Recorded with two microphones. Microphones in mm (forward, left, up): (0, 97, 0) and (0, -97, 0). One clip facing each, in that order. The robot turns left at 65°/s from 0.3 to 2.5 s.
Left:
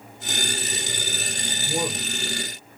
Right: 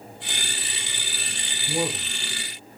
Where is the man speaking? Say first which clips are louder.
Right 1 dB; 20° left (ahead or behind), 1.1 m; by 2.8 s 25° left (ahead or behind), 1.1 m.